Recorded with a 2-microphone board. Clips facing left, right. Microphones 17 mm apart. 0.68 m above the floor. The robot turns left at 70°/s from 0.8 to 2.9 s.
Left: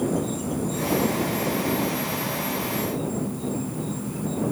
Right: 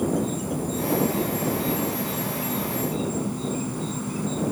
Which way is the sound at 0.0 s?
5° right.